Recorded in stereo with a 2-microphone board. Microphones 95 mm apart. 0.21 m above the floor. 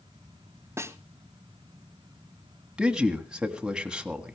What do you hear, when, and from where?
0.8 s a snare drum: 30° right (ahead or behind), 1.0 m
2.8 s a man speaking: 10° right (ahead or behind), 1.6 m